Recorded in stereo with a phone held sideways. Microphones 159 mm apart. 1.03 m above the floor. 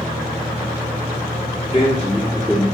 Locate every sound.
1.7 s a man speaking: 40° left (ahead or behind), 1.6 m